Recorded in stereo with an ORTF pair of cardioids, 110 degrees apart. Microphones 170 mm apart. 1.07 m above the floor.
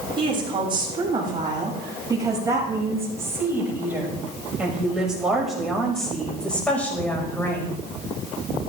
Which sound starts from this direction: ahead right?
A woman speaking, at 0.2 s.